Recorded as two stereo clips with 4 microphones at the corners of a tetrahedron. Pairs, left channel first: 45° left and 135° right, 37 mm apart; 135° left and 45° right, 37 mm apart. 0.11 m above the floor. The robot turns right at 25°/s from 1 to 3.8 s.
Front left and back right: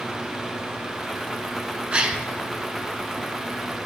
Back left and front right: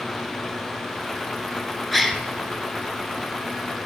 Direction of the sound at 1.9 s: 140° right.